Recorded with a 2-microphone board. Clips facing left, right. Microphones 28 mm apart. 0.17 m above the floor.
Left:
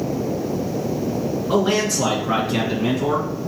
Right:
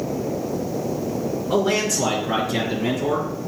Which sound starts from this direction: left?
A man speaking, at 1.5 s.